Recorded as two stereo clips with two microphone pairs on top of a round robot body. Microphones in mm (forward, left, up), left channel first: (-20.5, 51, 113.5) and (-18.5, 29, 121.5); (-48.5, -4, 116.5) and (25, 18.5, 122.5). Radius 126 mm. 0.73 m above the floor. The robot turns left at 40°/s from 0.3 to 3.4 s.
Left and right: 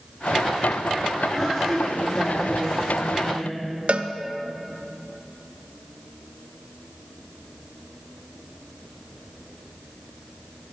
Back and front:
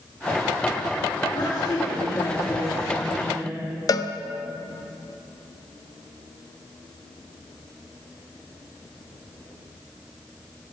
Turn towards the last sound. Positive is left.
turn(degrees=-125)